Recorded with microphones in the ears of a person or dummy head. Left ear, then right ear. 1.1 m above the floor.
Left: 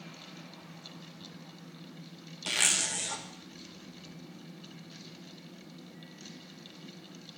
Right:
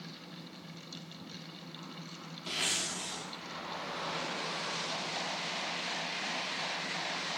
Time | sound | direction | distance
2.5 | a zipper | 55° left (ahead or behind) | 1.3 m